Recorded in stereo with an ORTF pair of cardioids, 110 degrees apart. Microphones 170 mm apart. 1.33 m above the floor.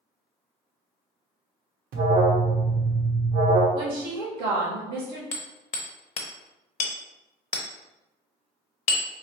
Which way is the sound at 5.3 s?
45° left.